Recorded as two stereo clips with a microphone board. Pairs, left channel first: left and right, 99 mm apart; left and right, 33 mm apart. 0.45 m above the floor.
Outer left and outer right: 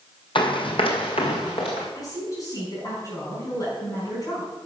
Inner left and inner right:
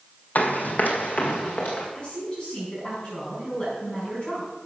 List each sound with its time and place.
0.3 s running footsteps: 60° left (ahead or behind), 1.1 m; by 1.9 s 75° left (ahead or behind), 2.5 m
1.9 s a woman speaking: 35° left (ahead or behind), 4.5 m